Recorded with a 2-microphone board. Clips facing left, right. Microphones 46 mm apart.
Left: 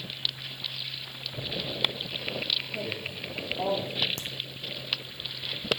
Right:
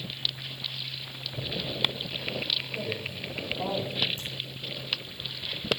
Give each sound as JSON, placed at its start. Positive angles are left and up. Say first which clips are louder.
{"t": 2.7, "sound": "a woman speaking", "louder": "right 1 dB", "side_deg": 60, "distance_m": 4.5}
{"t": 4.2, "sound": "a crack", "louder": "left 1 dB", "side_deg": 80, "distance_m": 1.8}